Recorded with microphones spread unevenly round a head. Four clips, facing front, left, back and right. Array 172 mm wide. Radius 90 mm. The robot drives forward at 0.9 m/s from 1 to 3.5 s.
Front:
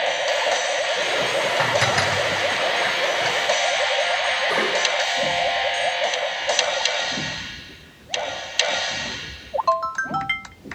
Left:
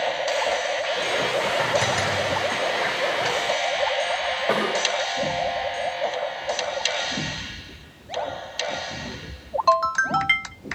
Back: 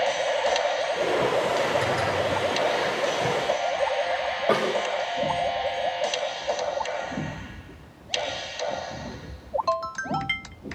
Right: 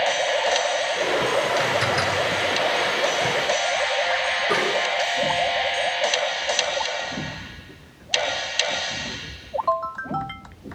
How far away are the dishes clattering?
About 8 m.